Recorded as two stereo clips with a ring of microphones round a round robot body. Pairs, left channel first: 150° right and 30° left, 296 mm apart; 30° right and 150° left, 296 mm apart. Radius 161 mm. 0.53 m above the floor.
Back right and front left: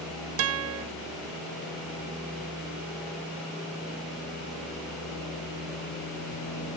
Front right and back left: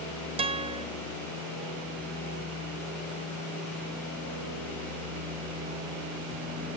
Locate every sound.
0.4 s a guitar: 75° left, 0.7 m